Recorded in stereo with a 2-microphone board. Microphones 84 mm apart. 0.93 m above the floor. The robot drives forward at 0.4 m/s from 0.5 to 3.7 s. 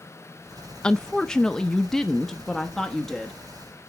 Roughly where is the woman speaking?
Centre.